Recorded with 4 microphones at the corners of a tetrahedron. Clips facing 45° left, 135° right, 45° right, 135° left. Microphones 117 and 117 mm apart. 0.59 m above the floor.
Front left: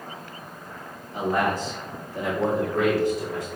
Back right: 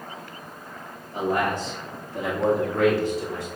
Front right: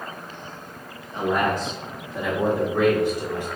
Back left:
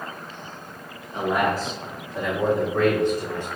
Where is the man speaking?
155° right, 1.6 m; by 3.5 s 115° right, 2 m.